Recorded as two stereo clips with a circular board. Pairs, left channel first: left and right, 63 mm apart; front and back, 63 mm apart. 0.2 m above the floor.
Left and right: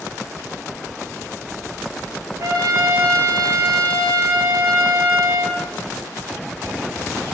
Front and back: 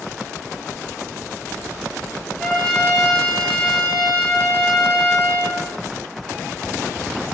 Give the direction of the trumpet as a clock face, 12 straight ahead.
3 o'clock.